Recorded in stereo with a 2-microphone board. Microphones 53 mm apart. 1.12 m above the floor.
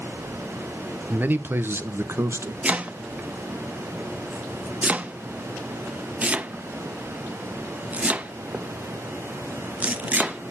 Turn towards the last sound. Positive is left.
turn(degrees=-25)  # may be behind; listen again after turning